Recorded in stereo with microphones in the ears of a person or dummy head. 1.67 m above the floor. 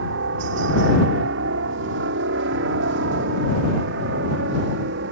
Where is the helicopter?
70° right (ahead or behind); by 5.1 s 60° right (ahead or behind).